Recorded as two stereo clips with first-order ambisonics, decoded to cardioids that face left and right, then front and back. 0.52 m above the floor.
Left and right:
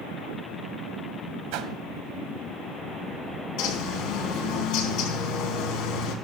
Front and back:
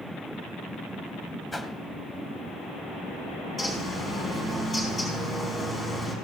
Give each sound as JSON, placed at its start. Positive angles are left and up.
{"t": 1.5, "sound": "a whoosh", "azimuth_deg": -80, "distance_m": 1.1}
{"t": 3.6, "sound": "a bird", "azimuth_deg": 70, "distance_m": 4.5}